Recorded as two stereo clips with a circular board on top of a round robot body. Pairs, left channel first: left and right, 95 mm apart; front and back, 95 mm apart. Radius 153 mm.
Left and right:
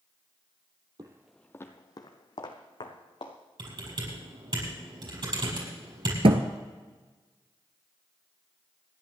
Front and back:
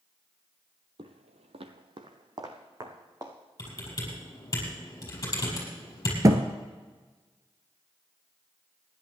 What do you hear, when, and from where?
1.0 s footsteps: 140° right, 0.5 m; by 3.4 s 125° left, 2.0 m
3.6 s typing on a keyboard: 55° right, 5.5 m
6.2 s a thud: 120° right, 0.8 m